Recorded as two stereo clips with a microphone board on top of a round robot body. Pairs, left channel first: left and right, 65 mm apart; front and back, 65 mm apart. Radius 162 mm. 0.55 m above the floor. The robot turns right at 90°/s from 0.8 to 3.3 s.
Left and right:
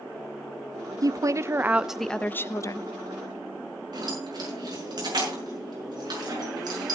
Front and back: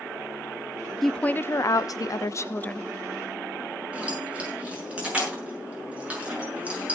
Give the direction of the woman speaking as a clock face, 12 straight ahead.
3 o'clock.